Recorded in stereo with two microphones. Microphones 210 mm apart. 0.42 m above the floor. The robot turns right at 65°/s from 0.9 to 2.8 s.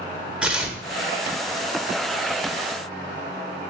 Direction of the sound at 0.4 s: 5° right (ahead or behind).